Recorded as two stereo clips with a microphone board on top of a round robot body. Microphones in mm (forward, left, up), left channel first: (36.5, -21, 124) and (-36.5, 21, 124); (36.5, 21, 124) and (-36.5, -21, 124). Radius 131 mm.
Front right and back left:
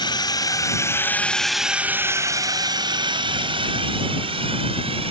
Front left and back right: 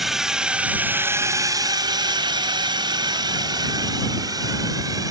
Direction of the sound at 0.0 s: 60° right.